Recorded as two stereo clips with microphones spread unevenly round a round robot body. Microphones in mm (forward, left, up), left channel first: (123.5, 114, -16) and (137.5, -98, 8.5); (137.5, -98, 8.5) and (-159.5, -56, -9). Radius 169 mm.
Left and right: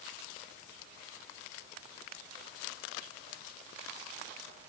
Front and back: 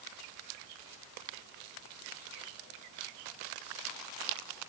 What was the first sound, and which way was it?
Only background noise.